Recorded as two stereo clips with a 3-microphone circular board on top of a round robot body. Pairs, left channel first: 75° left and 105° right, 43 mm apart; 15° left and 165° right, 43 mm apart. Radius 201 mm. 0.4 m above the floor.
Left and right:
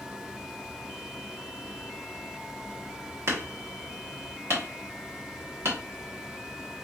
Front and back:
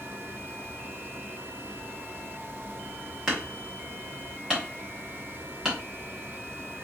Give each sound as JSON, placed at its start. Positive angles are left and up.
{"t": 0.0, "sound": "running water", "azimuth_deg": 180, "distance_m": 1.1}
{"t": 3.3, "sound": "hammering", "azimuth_deg": -90, "distance_m": 1.3}